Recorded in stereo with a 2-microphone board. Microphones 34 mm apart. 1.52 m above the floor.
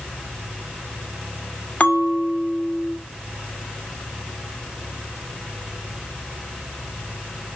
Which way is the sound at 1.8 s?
40° left (ahead or behind).